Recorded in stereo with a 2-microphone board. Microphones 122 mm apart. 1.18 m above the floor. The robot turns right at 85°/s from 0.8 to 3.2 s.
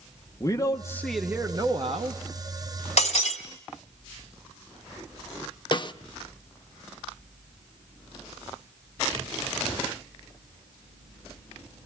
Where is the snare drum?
40° left (ahead or behind), 0.8 m.